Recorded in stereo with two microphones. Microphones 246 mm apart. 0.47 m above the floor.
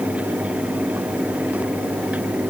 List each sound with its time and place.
Only background noise.